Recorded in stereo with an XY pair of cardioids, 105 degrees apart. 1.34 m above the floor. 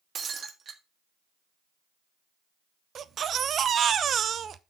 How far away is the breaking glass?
About 1.5 m.